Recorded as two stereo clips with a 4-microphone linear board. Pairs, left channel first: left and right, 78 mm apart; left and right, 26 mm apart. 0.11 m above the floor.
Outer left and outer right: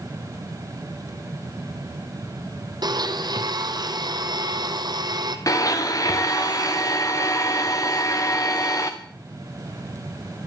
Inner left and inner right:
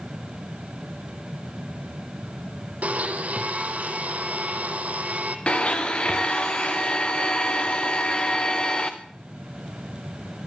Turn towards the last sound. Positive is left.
turn(degrees=45)  # may be behind; listen again after turning